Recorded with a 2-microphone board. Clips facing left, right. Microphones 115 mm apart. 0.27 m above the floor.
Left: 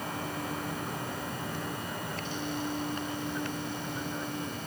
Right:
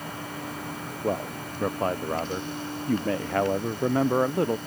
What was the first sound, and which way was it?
A man speaking, 65° right (ahead or behind).